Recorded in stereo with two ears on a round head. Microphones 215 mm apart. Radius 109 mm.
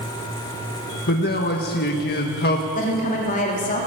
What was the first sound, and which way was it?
A man speaking, 45° left (ahead or behind).